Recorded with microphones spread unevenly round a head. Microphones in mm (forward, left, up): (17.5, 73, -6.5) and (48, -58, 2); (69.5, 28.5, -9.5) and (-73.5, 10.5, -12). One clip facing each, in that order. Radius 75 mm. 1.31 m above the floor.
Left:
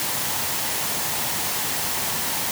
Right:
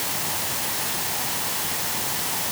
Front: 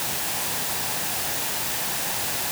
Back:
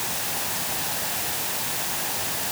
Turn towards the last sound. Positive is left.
No sound to turn to.